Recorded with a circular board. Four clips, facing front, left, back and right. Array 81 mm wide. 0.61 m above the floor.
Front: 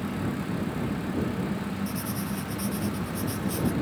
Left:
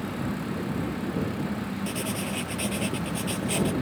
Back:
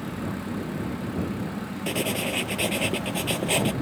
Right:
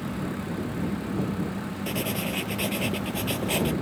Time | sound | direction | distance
1.9 | writing | 170° right | ?